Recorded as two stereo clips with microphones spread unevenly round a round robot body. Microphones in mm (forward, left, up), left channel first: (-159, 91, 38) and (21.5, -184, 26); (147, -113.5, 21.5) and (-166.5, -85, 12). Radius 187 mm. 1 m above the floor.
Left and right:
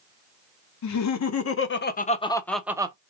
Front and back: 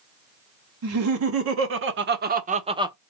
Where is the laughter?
145° left, 1.2 m; by 3.0 s 115° right, 0.8 m.